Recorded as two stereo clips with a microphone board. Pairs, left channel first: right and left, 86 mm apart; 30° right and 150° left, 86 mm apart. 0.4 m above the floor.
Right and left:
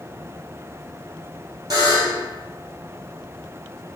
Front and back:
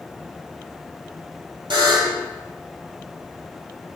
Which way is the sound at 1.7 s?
130° left.